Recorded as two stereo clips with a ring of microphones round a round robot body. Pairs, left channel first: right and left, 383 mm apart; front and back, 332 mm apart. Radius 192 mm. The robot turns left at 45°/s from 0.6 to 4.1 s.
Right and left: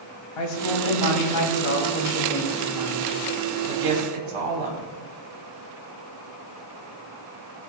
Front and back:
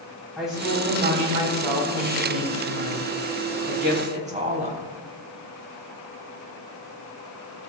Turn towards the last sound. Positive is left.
turn(degrees=110)